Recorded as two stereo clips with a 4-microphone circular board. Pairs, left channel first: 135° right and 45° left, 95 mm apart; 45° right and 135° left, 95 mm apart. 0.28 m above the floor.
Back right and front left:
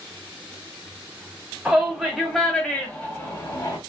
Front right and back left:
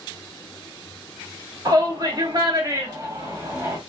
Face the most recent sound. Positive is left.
turn(degrees=-170)